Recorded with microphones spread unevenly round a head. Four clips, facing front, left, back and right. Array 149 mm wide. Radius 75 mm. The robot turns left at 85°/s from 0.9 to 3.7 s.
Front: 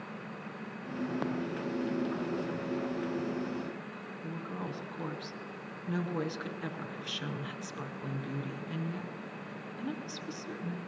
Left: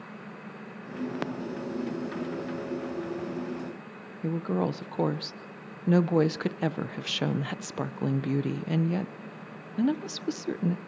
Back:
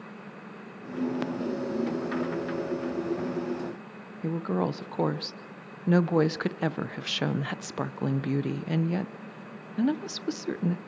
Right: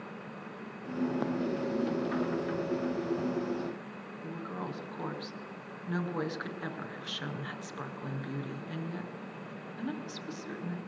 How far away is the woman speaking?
About 0.8 m.